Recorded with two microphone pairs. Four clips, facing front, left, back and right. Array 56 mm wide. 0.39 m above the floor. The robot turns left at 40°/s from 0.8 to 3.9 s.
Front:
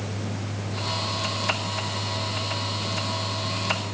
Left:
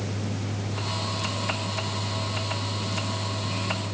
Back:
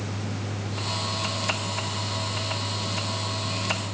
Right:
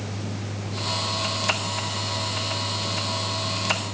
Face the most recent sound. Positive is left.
No sound to turn to.